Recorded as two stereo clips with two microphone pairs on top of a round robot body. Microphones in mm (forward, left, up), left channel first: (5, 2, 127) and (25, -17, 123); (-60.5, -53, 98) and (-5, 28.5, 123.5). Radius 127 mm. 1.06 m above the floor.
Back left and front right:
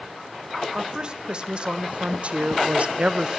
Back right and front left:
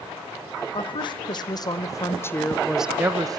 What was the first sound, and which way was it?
A woman speaking, 95° right.